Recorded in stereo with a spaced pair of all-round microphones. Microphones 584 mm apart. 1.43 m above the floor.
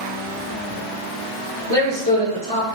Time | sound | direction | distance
1.7 | a man speaking | 65° right (ahead or behind) | 1.8 m